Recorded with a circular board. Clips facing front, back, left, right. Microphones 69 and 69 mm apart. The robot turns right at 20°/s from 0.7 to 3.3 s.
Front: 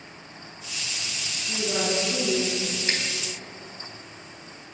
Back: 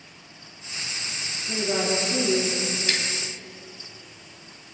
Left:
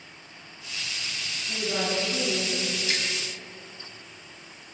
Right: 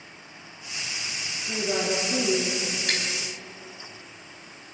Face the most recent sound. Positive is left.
turn(degrees=-55)